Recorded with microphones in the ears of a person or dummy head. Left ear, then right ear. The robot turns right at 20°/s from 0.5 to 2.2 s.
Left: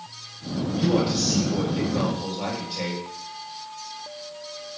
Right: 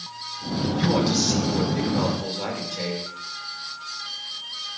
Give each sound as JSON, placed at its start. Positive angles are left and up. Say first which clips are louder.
{"t": 0.8, "sound": "a man speaking", "louder": "even", "side_deg": -40, "distance_m": 6.0}